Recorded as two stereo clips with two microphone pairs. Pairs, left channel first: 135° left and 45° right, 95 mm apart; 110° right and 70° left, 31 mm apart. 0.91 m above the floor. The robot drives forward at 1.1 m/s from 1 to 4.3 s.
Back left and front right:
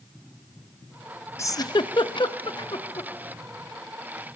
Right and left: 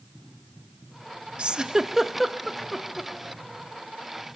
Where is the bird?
No bird in this recording.